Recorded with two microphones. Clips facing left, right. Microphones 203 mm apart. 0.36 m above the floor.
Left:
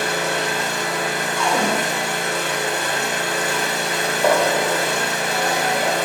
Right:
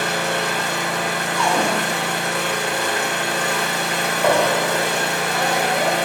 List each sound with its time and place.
0.0 s an engine running: 65° right (ahead or behind), 1.3 m
1.4 s a cupboard door: 25° left (ahead or behind), 0.7 m
4.0 s a gunshot: 15° left (ahead or behind), 0.8 m